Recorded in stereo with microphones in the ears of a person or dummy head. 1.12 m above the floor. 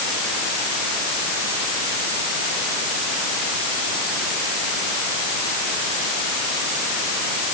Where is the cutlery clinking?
I don't hear cutlery clinking.